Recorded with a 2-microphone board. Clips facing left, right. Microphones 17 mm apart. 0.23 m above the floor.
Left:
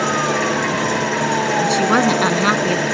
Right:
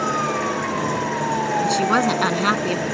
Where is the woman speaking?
5° left (ahead or behind).